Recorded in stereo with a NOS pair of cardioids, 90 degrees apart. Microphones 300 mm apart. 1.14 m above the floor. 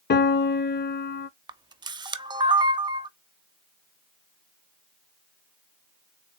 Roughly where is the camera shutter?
Ahead.